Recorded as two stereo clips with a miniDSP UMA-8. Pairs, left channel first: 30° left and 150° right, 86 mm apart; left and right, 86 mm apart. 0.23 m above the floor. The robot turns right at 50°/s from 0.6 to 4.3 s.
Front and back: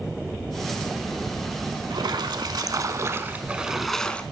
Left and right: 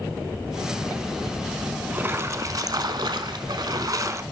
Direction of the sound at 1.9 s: 155° right.